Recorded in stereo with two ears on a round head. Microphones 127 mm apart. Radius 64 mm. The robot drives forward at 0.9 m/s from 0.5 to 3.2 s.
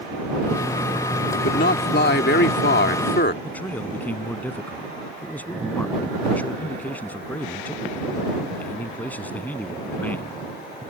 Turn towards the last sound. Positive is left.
turn(degrees=15)  # may be behind; listen again after turning